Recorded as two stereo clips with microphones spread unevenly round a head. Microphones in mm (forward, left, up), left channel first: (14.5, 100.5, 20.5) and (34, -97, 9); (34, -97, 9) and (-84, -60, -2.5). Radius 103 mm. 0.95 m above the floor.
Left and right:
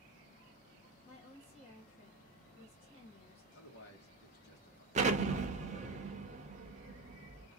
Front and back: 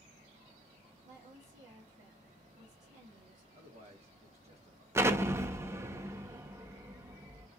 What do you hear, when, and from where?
1.1 s a woman speaking: 160° left, 1.7 m
3.5 s a man speaking: 130° left, 1.5 m
5.0 s an explosion: 130° right, 0.7 m